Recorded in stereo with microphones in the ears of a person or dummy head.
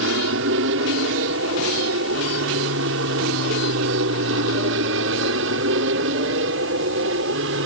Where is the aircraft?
60° right (ahead or behind).